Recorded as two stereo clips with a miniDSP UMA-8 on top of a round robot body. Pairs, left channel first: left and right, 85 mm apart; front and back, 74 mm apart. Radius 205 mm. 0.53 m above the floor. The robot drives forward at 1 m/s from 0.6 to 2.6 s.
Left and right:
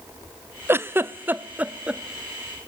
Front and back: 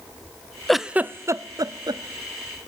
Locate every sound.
0.7 s a giggle: 80° right, 0.9 m; by 2.0 s 165° right, 1.5 m